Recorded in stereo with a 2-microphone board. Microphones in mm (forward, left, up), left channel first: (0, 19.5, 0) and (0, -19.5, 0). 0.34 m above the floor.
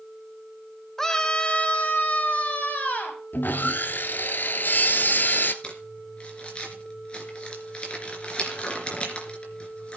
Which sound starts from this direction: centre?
A scream, at 1.0 s.